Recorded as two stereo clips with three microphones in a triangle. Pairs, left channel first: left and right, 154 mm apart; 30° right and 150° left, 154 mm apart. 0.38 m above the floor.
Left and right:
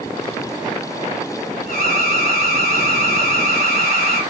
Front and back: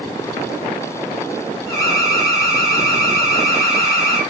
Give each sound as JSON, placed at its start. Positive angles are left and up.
{"t": 1.7, "sound": "an alarm", "azimuth_deg": -95, "distance_m": 7.0}